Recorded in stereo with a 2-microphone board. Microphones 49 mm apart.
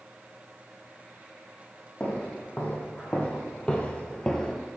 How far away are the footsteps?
About 2.5 m.